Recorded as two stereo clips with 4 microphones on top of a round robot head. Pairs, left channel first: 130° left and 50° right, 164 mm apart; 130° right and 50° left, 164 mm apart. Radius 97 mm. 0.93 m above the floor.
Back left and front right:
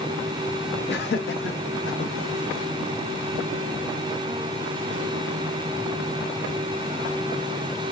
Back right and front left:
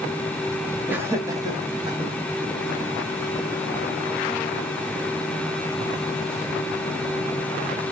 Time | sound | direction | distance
0.9 | laughter | 130° left | 1.9 m